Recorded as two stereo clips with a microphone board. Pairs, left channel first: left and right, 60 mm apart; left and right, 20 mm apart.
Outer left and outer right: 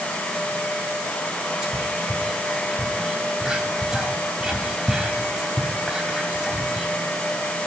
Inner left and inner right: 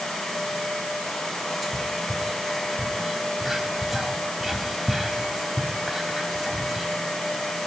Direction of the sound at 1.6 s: 15° right (ahead or behind).